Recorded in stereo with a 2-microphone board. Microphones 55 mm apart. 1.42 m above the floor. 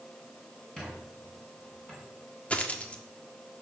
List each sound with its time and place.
0.8 s a squeak: 15° left (ahead or behind), 6 m
2.5 s a dropped coin: 25° left (ahead or behind), 1.5 m